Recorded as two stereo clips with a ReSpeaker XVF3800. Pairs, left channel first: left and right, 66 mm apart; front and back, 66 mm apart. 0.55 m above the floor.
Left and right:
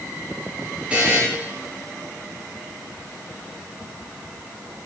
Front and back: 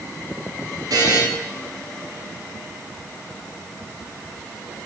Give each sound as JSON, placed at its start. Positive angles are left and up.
{"t": 0.9, "sound": "a buzzer", "azimuth_deg": -160, "distance_m": 2.5}